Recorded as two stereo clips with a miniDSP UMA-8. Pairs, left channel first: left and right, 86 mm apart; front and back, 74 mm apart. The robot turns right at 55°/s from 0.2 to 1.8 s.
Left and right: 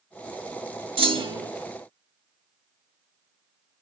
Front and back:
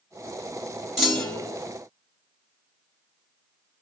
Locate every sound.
1.0 s a clunk: 90° right, 1.6 m; by 1.6 s 60° right, 1.6 m